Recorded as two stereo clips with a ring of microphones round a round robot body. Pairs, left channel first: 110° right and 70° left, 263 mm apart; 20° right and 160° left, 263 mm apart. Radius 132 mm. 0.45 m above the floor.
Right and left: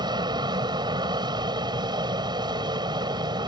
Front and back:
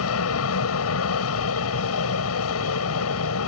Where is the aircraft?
5° right.